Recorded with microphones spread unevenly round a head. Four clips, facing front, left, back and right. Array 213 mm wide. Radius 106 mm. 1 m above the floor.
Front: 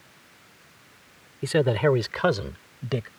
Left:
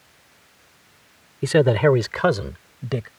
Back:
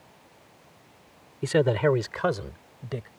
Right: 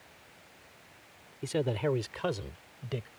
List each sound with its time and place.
1.4 s a man speaking: 75° left; by 3.1 s 45° left